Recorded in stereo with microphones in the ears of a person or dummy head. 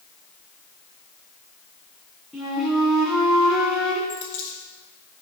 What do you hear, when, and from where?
2.3 s a flute: centre (ahead or behind), 3 m
4.1 s a dropped coin: 45° left (ahead or behind), 2 m